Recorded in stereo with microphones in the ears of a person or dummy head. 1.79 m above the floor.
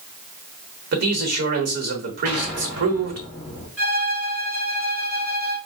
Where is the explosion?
10° right (ahead or behind), 1.1 m.